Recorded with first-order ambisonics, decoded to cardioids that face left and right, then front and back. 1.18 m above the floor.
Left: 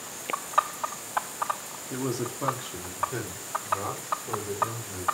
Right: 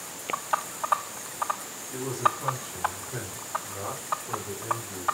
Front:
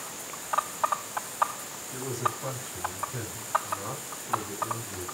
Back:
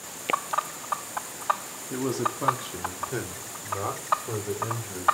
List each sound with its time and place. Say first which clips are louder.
1.9 s a man speaking: right 6 dB, back 3 dB; 140° left, 2.5 m; by 5.0 s 165° left, 5 m